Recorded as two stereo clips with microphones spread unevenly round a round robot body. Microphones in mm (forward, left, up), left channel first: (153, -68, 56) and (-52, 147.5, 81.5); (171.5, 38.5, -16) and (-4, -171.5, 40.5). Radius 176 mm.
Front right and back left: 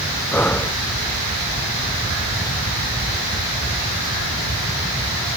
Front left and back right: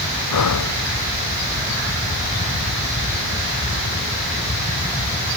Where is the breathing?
40° left.